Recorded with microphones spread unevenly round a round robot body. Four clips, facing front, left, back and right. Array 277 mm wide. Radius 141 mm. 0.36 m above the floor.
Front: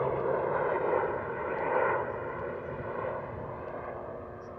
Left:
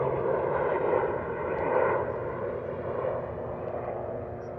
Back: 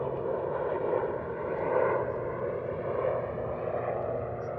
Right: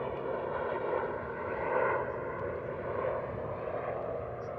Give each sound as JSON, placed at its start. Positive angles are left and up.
{"t": 0.0, "sound": "a helicopter", "azimuth_deg": 75}